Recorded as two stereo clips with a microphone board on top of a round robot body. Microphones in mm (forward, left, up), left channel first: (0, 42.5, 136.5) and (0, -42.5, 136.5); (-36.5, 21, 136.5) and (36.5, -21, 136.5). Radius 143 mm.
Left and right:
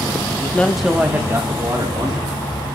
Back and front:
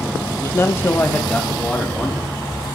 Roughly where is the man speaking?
Behind left.